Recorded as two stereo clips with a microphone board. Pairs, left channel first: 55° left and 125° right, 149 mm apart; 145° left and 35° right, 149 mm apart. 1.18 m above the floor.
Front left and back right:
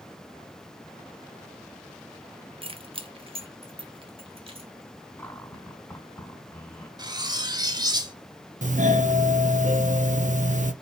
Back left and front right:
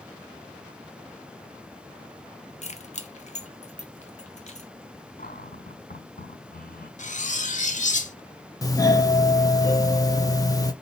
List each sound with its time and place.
2.6 s keys jangling: 175° right, 0.9 m
5.2 s a cupboard door: 130° left, 3.5 m
7.0 s cutlery clinking: 175° left, 1.2 m
8.6 s a doorbell: 150° right, 1.1 m